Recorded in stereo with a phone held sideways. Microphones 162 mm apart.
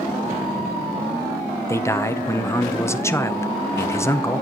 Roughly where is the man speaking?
Centre.